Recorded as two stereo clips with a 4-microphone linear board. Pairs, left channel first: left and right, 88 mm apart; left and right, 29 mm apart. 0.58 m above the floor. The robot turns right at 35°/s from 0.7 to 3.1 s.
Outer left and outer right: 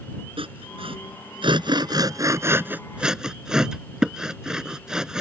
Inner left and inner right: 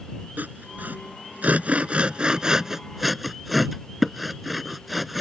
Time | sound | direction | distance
0.4 | sawing | 85° right | ?